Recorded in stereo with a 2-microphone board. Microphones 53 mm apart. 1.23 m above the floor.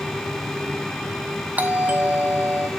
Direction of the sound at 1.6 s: 30° right (ahead or behind).